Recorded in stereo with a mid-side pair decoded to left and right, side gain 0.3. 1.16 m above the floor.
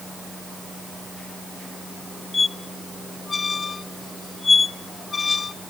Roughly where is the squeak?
Ahead left.